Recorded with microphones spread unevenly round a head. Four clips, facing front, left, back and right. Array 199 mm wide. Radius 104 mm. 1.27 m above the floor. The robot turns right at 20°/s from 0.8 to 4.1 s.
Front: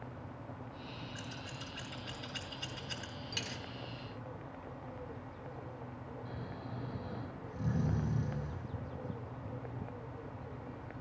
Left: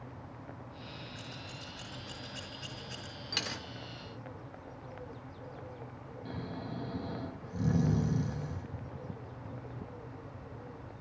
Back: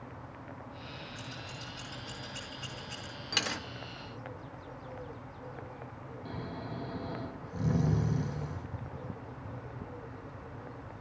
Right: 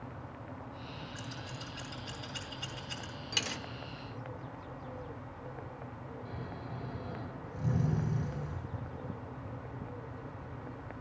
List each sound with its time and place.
1.1 s scissors: 75° right, 6.5 m; by 3.1 s 35° right, 6.5 m
3.3 s a dropped coin: 165° left, 0.5 m; by 3.6 s 175° left, 0.5 m
6.2 s snoring: 115° left, 2.5 m